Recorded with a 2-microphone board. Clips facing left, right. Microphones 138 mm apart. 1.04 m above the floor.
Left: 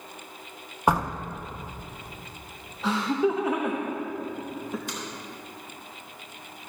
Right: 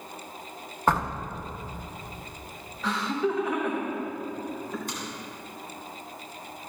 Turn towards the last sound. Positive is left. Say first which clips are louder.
# even
turn(degrees=-45)  # may be behind; listen again after turning